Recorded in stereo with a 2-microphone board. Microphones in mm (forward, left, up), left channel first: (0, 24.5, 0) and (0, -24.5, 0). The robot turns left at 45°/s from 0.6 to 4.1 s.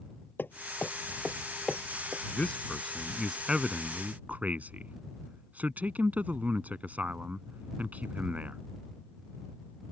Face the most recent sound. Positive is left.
turn(degrees=-35)  # may be behind; listen again after turning